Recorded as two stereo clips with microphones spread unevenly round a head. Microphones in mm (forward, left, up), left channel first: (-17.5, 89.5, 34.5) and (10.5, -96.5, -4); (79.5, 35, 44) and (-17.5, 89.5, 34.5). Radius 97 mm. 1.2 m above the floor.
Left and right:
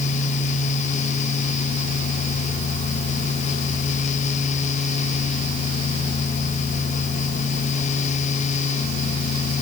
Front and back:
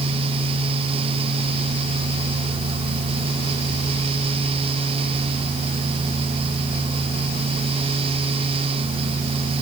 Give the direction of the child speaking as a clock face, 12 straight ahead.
No child speaking in this recording.